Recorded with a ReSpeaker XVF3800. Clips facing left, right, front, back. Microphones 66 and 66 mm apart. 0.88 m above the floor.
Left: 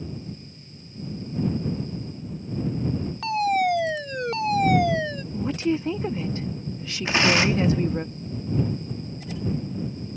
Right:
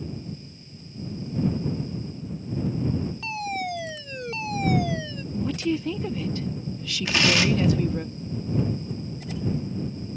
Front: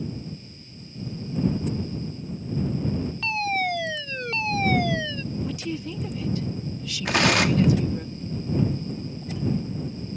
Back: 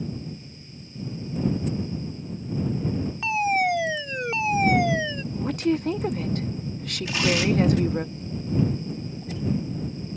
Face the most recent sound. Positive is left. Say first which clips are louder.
# left 2 dB, front 2 dB
turn(degrees=25)